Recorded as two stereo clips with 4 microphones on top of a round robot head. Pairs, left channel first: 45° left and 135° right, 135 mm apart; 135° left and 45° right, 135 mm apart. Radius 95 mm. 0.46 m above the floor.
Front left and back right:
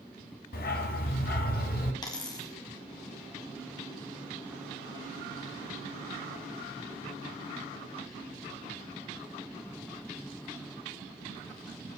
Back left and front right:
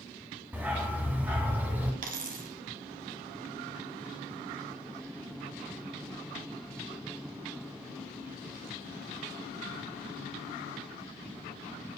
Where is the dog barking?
35° left, 1.5 m.